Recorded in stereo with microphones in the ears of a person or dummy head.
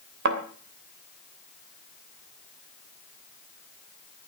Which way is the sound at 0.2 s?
65° right (ahead or behind).